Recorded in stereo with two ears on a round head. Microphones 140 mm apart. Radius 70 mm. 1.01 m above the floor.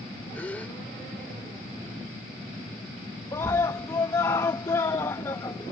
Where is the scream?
20° left (ahead or behind).